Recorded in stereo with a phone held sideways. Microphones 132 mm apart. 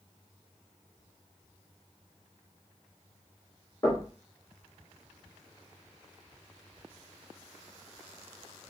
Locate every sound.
3.8 s knocking: 25° left (ahead or behind), 2.5 m